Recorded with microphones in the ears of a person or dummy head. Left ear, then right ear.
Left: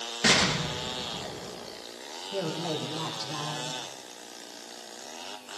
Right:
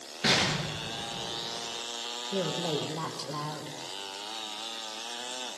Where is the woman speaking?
85° right, 5.5 m.